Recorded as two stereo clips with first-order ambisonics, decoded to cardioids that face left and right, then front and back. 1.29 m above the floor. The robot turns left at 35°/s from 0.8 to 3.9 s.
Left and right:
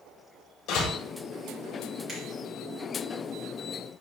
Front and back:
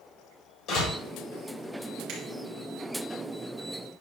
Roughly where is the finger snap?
Behind right.